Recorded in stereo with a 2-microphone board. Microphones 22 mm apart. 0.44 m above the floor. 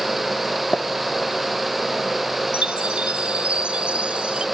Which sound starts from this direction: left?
Tapping, at 0.7 s.